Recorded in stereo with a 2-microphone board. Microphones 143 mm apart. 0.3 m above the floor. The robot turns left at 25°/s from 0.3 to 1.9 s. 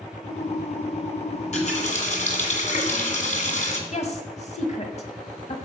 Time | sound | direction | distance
1.3 | a running tap | 50° left (ahead or behind) | 2.0 m
3.9 | a woman speaking | 55° left (ahead or behind) | 1.7 m